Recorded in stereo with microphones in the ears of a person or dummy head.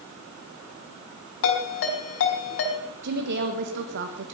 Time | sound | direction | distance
1.4 | a ringtone | 70° left (ahead or behind) | 4 m
3.0 | a woman speaking | 60° right (ahead or behind) | 1.6 m